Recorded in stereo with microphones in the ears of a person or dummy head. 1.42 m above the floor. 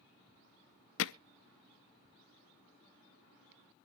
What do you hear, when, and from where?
1.0 s hammering: 85° left, 0.6 m